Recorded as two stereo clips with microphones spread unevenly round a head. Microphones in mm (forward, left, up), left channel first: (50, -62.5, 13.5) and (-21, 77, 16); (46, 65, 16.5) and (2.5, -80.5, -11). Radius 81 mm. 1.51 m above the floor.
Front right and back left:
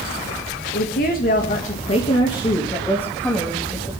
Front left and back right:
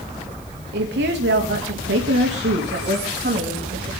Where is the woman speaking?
95° right, 2.5 m; by 3.9 s 155° right, 3 m.